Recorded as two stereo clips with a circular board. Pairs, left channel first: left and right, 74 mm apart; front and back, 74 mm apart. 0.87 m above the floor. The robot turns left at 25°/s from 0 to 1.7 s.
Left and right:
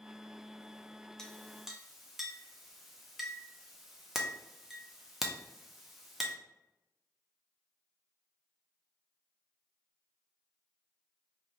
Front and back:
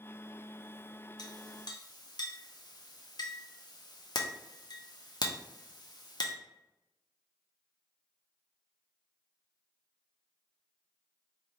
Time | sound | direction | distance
1.2 | a clink | 10° left | 0.6 m